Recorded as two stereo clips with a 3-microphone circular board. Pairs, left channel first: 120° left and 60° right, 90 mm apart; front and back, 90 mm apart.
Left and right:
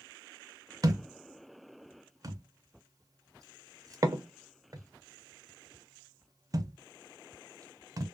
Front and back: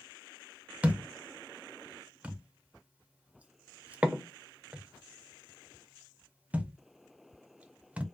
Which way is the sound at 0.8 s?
105° right.